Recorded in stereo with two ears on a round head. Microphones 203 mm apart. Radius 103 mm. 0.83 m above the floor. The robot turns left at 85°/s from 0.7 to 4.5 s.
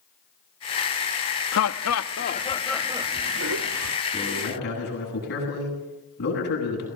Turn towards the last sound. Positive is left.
turn(degrees=130)